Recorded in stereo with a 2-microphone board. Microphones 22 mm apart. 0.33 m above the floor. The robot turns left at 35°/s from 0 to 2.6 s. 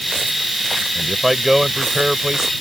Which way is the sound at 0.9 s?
Straight ahead.